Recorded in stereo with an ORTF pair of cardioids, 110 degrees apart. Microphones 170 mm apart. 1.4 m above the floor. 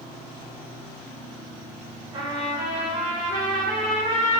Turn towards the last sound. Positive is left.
turn(degrees=-25)